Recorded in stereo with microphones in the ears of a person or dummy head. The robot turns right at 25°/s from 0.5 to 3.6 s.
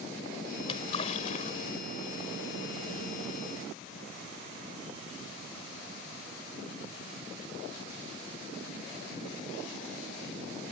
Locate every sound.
0.6 s a splash: 25° left (ahead or behind); by 2.2 s 65° left (ahead or behind)